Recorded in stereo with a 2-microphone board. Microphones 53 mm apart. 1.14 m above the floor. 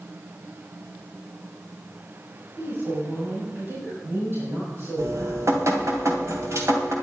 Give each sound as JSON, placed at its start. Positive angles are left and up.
{"t": 2.6, "sound": "a woman speaking", "side_deg": -50, "distance_m": 5.5}
{"t": 5.0, "sound": "dripping", "side_deg": -65, "distance_m": 2.5}